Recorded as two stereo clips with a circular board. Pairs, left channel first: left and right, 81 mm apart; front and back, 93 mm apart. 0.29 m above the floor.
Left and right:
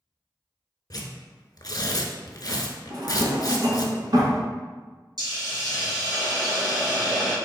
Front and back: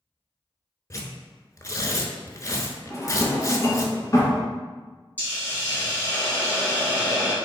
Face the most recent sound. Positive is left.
turn(degrees=-70)